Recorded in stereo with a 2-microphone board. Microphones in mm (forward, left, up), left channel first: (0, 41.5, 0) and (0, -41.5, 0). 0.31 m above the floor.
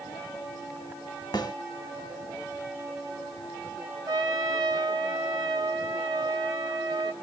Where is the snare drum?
55° left (ahead or behind), 1.2 m.